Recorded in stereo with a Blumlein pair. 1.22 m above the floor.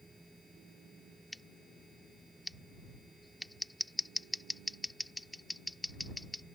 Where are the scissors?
5° left.